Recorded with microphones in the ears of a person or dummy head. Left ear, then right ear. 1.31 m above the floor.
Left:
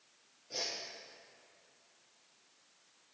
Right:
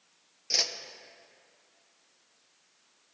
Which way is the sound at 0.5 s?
65° right (ahead or behind).